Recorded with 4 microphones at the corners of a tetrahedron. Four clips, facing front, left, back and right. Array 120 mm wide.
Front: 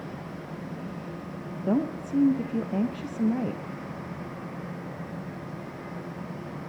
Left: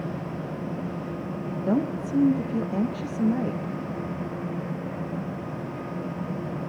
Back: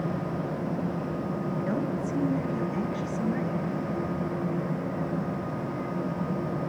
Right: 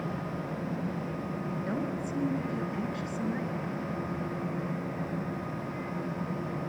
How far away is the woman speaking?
About 3 m.